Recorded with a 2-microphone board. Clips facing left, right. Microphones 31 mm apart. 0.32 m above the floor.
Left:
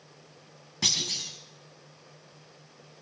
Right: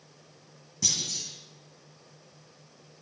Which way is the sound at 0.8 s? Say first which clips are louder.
Left 3 dB; 45° left (ahead or behind).